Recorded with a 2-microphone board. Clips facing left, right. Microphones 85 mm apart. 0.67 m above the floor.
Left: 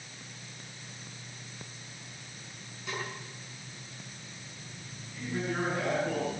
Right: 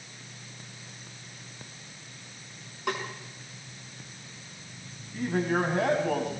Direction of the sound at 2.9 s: 70° right (ahead or behind).